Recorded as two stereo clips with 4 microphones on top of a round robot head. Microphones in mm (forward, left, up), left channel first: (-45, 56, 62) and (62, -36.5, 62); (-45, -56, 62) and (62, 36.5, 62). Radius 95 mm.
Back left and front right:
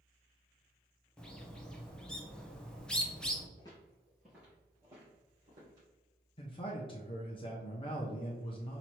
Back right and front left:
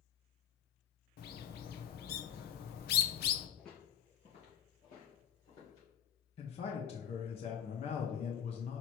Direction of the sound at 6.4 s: 175° right.